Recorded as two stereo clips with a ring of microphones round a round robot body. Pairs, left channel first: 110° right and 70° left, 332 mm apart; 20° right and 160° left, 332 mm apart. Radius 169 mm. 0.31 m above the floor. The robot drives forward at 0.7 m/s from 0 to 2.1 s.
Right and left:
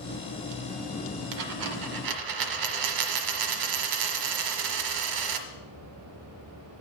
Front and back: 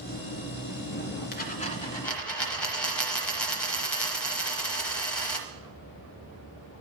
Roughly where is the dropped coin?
Ahead left.